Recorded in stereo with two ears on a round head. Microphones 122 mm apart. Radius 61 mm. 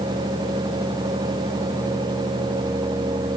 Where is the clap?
I don't hear a clap.